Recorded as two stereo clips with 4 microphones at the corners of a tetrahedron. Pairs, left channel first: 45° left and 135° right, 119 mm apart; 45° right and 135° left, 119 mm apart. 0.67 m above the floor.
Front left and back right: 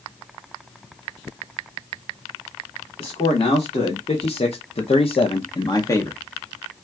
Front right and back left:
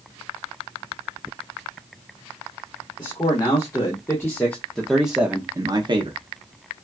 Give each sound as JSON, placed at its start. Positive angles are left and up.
{"t": 3.0, "sound": "a man speaking", "azimuth_deg": 5, "distance_m": 1.5}